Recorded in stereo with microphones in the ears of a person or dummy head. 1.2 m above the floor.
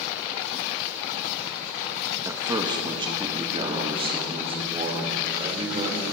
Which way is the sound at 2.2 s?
20° right (ahead or behind).